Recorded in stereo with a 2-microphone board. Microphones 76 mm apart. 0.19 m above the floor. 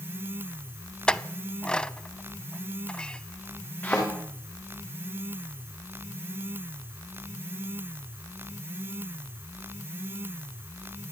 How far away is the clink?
About 0.7 m.